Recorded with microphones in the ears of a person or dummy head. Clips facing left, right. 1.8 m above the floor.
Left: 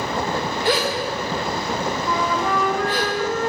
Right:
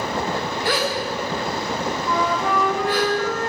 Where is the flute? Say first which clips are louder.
Right 1 dB; centre (ahead or behind), 0.8 m.